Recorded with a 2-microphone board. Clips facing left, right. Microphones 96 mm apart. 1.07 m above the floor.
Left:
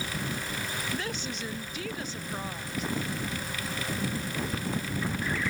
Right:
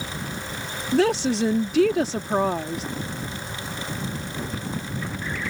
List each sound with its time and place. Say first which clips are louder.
0.9 s a woman speaking: right 15 dB; 85° right